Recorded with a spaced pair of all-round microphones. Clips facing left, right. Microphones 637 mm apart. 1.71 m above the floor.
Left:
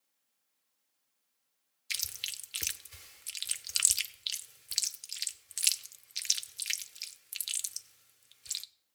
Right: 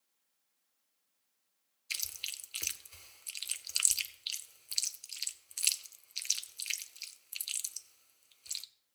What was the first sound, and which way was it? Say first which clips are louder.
Chewing: left 3 dB; 50° left (ahead or behind).